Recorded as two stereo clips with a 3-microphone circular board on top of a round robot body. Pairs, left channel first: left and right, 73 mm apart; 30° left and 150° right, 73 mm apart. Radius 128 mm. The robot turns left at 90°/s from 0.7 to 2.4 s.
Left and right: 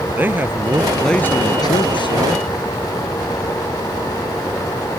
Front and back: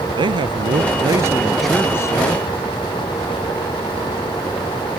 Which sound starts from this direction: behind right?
A man speaking, at 0.2 s.